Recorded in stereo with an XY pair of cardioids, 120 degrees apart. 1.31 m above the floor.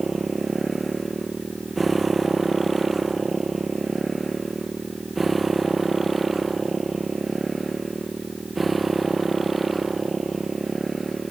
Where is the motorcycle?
20° right.